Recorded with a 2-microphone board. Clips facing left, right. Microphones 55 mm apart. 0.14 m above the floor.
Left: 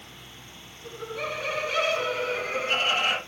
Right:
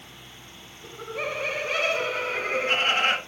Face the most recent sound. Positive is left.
turn(degrees=-45)  # may be behind; listen again after turning